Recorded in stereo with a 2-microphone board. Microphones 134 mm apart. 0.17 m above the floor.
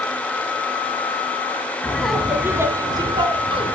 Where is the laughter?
10° left (ahead or behind), 1.2 m; by 3.8 s 45° right (ahead or behind), 1.9 m.